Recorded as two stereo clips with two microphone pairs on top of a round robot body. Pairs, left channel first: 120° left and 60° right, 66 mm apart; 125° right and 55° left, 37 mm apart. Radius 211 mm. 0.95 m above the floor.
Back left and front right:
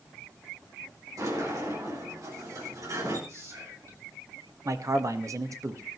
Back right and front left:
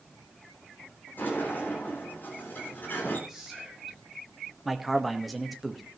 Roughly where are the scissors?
No scissors in this recording.